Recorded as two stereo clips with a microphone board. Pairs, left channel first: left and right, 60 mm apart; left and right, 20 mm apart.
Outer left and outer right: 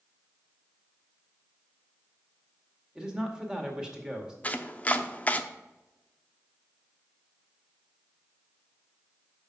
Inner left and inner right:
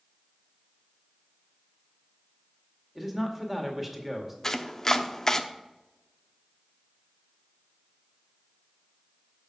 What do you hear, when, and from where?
3.0 s a man speaking: 15° right (ahead or behind), 2.0 m
4.4 s chopping: 25° left (ahead or behind), 0.6 m